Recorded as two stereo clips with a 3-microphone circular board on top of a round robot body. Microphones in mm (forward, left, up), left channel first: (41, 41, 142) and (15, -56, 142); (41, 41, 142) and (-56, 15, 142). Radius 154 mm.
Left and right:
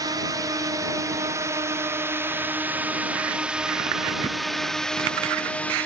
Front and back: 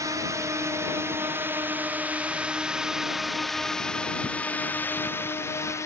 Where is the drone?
130° right; by 5.8 s 15° left.